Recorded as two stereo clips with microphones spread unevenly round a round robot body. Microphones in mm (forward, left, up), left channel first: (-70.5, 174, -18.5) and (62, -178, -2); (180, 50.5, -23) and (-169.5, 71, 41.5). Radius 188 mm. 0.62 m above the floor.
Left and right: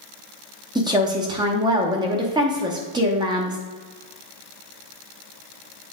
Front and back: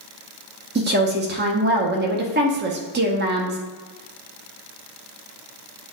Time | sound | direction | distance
0.8 | a woman speaking | 140° right | 0.9 m